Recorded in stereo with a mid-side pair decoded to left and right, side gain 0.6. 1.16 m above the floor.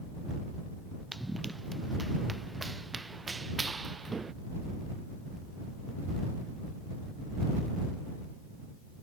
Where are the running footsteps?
5° right; by 4.3 s 25° right.